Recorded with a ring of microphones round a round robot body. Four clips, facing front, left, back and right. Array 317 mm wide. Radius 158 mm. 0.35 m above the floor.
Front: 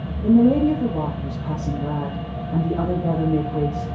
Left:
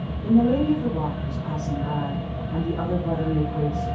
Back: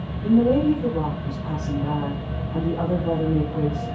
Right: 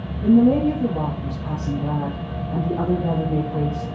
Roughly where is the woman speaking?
Ahead right.